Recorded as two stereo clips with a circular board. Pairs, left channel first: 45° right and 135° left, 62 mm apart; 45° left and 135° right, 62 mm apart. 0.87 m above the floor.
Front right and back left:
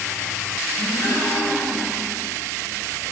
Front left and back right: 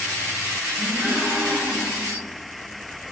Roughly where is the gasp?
Right.